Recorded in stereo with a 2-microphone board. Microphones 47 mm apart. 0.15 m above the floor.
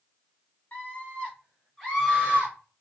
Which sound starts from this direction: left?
A scream, at 0.7 s.